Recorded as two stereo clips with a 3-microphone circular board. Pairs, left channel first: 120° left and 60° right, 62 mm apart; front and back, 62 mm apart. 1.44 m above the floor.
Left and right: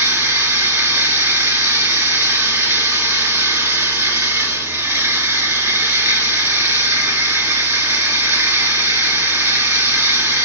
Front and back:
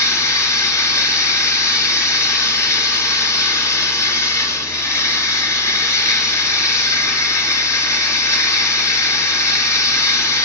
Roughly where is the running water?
Ahead.